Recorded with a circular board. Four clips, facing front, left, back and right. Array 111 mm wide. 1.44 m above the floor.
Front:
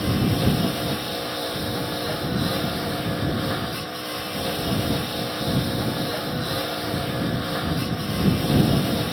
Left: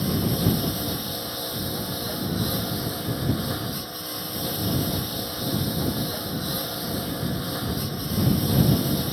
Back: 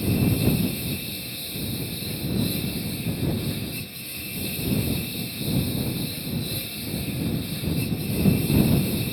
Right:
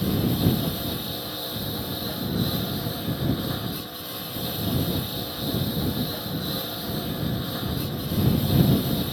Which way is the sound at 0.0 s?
5° left.